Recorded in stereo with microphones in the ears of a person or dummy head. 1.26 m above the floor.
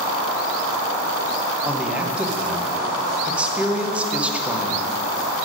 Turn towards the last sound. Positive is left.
turn(degrees=-5)  # may be behind; listen again after turning